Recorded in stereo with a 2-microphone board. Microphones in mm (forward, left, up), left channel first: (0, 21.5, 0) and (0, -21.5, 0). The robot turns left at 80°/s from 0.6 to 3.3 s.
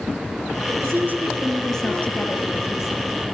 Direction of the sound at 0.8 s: 110° right.